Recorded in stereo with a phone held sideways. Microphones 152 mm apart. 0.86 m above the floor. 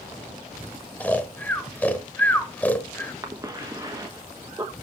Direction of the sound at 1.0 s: 10° left (ahead or behind).